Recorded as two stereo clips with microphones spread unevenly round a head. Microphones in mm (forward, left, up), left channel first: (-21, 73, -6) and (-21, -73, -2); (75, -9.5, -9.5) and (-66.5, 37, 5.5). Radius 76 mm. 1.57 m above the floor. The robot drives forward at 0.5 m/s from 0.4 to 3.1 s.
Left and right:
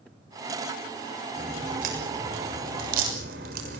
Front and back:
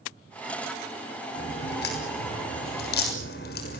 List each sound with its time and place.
1.4 s a crack: 45° right, 7 m; by 3.8 s 50° right, 6.5 m